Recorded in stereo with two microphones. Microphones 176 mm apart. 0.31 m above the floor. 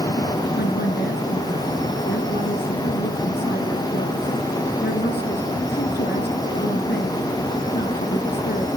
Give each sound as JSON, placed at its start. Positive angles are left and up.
{"t": 0.6, "sound": "a woman speaking", "side_deg": 70, "distance_m": 4.0}